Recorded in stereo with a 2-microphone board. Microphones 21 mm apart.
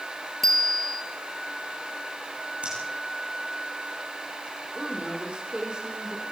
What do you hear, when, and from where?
0.4 s a bicycle bell: 20° left (ahead or behind), 3.5 m
2.6 s breathing: 80° right, 8.5 m
4.8 s a woman speaking: 50° right (ahead or behind), 8 m